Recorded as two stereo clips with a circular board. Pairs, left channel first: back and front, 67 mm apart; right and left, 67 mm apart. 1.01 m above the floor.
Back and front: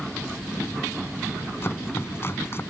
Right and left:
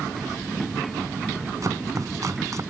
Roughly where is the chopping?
Behind left.